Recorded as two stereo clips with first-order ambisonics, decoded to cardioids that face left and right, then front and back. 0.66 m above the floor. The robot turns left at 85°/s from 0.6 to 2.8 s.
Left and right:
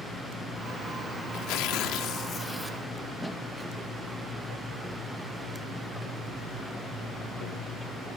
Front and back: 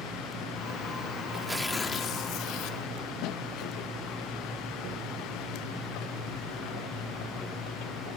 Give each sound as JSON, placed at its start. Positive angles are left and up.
{"t": 1.3, "sound": "tearing paper", "azimuth_deg": 115, "distance_m": 1.1}